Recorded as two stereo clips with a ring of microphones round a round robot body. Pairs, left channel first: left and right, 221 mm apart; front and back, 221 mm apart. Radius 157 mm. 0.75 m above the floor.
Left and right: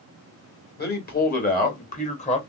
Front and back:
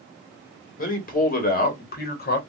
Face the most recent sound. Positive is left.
turn(degrees=35)